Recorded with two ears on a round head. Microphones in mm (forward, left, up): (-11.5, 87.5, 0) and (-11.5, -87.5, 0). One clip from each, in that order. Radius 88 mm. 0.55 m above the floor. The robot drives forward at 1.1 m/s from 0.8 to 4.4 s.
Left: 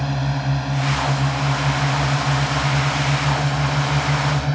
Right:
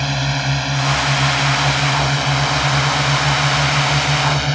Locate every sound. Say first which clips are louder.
0.0 s a drone: right 6 dB; 60° right (ahead or behind); by 4.5 s 70° right (ahead or behind)